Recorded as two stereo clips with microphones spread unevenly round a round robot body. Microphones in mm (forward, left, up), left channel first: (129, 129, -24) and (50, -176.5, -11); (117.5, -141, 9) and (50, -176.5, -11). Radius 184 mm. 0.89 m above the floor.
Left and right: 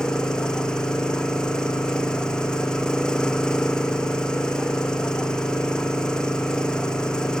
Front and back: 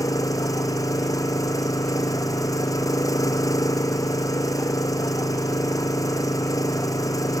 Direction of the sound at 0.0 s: 10° right.